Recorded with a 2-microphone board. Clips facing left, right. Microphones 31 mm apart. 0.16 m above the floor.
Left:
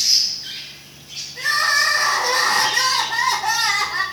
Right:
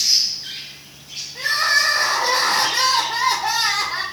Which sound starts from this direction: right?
Crying, at 1.4 s.